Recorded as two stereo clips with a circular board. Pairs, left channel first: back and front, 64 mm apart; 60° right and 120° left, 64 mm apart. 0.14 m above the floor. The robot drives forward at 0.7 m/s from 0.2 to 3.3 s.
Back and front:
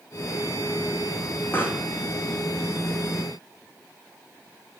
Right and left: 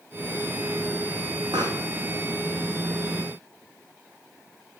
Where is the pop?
120° left, 4 m.